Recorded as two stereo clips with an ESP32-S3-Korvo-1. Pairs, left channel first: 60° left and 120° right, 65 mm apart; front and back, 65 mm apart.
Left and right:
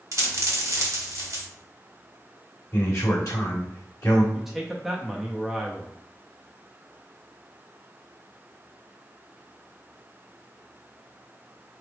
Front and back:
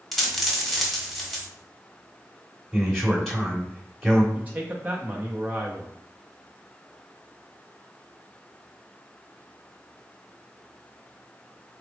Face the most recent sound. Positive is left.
turn(degrees=155)